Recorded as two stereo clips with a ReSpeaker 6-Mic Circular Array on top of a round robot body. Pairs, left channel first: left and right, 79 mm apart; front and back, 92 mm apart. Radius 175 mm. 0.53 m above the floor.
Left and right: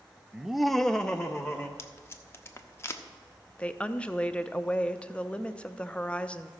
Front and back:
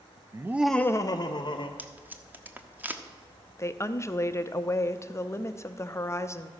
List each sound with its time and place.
0.3 s laughter: 170° right, 0.7 m; by 1.7 s 10° left, 1.2 m
1.8 s tape being pulled: 120° left, 1.1 m
3.6 s a woman speaking: 25° left, 0.7 m